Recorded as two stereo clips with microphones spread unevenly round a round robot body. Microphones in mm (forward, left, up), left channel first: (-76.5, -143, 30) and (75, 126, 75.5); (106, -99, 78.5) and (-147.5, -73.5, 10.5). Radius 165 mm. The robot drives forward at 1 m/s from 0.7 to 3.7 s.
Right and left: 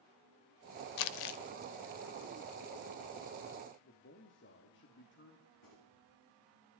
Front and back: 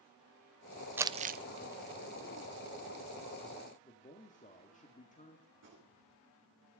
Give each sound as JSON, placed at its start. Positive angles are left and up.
{"t": 1.0, "sound": "crumpling", "azimuth_deg": -90, "distance_m": 0.7}
{"t": 3.8, "sound": "a man speaking", "azimuth_deg": -70, "distance_m": 1.6}
{"t": 5.5, "sound": "a gunshot", "azimuth_deg": -145, "distance_m": 9.5}